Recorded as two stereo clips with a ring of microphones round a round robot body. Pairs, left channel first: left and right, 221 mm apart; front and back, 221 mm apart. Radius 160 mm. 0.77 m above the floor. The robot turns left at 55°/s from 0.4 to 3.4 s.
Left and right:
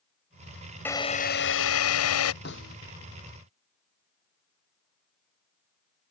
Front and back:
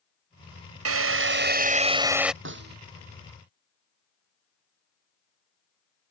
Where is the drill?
175° left; by 2.3 s 90° left.